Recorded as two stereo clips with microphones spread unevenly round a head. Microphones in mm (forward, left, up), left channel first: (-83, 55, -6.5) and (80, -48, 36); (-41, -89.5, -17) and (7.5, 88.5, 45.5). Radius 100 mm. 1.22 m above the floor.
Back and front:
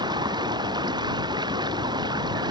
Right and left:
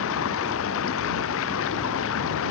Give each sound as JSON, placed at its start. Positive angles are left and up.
{"t": 0.0, "sound": "running water", "azimuth_deg": -100}